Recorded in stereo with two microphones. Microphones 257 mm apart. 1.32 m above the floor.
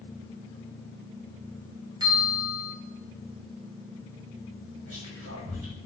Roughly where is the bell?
Centre.